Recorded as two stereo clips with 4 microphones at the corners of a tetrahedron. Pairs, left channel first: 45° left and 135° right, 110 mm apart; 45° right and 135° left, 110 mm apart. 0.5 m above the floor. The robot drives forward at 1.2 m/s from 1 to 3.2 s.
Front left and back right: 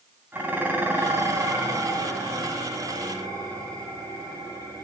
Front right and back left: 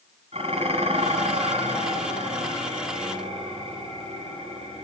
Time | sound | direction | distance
0.3 | dishes clattering | 155° left | 2.5 m